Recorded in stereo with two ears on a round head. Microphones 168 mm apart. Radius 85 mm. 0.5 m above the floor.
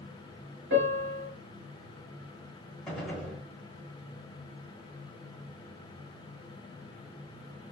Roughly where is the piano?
Right.